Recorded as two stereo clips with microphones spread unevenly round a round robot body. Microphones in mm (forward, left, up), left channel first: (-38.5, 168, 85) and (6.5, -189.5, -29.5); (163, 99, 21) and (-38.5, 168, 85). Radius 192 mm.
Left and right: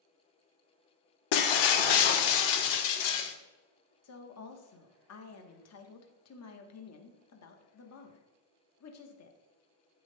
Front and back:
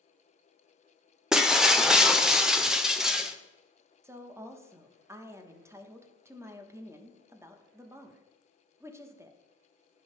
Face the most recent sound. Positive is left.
turn(degrees=60)